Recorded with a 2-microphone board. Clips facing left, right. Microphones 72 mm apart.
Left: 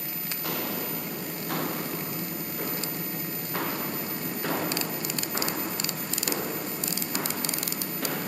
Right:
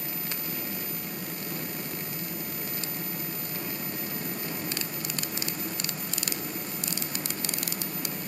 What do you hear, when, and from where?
0.4 s footsteps: 80° left